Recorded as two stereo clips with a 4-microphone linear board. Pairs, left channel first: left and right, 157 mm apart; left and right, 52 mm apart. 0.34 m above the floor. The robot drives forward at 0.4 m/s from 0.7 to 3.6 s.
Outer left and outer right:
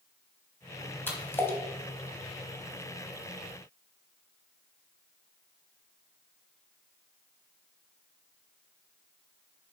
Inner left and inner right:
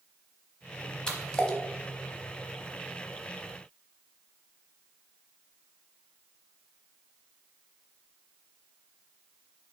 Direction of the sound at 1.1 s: 15° left (ahead or behind).